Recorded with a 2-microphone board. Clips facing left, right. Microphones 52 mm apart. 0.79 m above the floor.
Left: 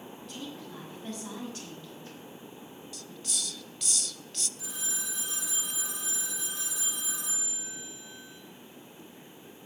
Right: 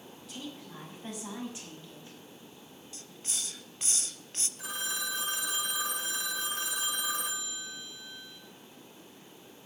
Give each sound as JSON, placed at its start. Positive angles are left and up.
{"t": 0.3, "sound": "a woman speaking", "side_deg": -5, "distance_m": 5.5}
{"t": 2.9, "sound": "a hiss", "side_deg": -30, "distance_m": 0.6}
{"t": 4.6, "sound": "a phone ringing", "side_deg": -50, "distance_m": 1.9}